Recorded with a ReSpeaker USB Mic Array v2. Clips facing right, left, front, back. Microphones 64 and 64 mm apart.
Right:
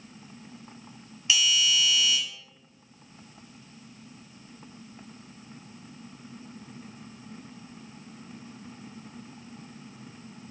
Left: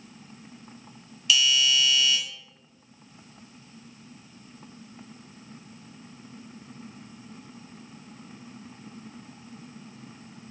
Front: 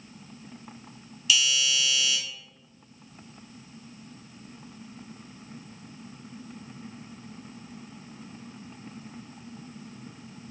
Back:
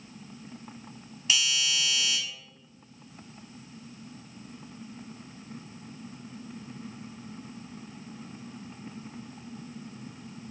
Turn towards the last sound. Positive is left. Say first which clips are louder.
# left 2 dB, front 3 dB
turn(degrees=-140)